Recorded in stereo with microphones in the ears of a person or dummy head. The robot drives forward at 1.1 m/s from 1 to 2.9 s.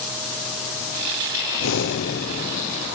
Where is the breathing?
80° left, 1.0 m; by 2.9 s 35° left (ahead or behind), 1.9 m.